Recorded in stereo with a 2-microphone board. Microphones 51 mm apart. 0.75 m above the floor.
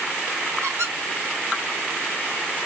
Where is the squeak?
70° right (ahead or behind), 1.0 m.